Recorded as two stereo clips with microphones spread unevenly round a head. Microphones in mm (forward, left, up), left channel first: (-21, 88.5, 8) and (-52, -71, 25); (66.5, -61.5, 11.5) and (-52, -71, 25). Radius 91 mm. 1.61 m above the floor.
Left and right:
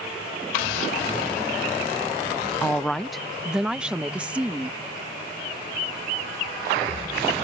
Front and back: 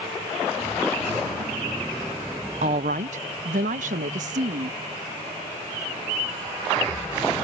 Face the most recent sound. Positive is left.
turn(degrees=180)